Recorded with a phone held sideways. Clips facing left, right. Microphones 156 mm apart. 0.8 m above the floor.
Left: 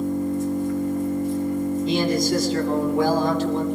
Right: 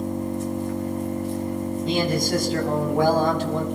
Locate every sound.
0.0 s an engine running: 85° right, 3.5 m
1.9 s a man speaking: 60° right (ahead or behind), 5 m